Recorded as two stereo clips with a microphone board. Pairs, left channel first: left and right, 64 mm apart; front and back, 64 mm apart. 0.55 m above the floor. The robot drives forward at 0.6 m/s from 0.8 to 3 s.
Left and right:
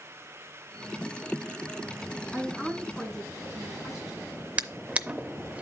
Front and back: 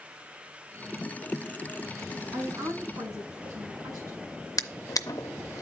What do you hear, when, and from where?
2.3 s a woman speaking: 175° left, 5.5 m
4.6 s a drawer: 20° right, 0.5 m